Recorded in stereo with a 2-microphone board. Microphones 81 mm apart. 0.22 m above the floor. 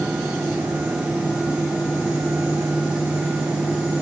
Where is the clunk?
No clunk in this recording.